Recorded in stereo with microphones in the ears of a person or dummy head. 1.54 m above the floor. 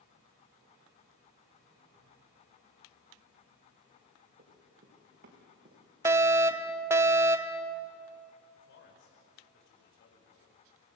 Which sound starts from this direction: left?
A man speaking, at 8.6 s.